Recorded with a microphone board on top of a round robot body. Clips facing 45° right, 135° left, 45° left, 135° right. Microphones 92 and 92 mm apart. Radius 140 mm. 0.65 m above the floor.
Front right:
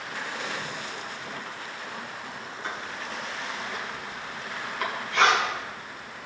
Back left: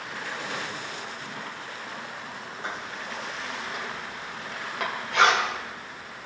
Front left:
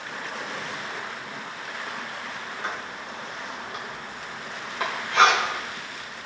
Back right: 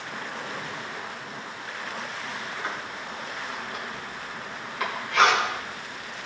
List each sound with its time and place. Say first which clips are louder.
2.6 s writing: even, even; 110° left, 2.5 m